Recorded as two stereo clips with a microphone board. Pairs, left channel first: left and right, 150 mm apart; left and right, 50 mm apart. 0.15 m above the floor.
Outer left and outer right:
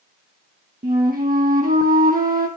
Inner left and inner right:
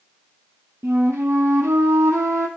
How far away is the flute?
About 1.9 m.